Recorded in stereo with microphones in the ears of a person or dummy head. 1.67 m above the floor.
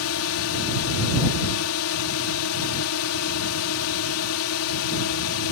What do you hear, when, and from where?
0.0 s a drone: 80° left